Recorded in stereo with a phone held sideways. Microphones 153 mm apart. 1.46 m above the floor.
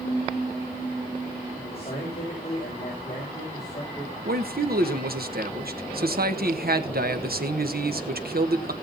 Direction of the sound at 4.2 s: 70° right (ahead or behind).